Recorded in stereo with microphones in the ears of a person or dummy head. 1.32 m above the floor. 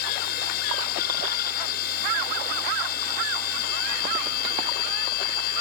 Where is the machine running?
60° left (ahead or behind).